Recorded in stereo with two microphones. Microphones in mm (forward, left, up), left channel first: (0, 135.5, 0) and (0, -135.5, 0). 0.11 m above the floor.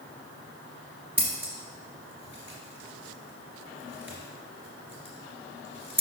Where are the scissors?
45° right (ahead or behind), 2 m.